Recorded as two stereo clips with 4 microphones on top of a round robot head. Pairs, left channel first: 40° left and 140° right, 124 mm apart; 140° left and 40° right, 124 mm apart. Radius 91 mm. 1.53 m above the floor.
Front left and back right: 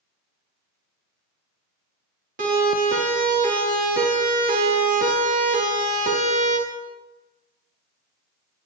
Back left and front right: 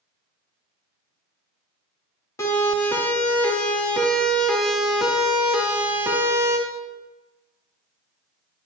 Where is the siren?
150° right, 4.5 m; by 6.6 s 105° right, 3 m.